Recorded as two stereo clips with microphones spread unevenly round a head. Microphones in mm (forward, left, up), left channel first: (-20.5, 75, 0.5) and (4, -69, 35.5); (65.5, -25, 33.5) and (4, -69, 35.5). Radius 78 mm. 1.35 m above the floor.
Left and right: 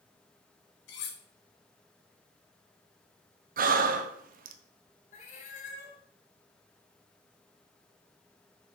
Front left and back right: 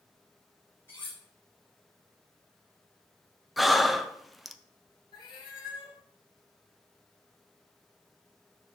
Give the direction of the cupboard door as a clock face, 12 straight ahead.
No cupboard door in this recording.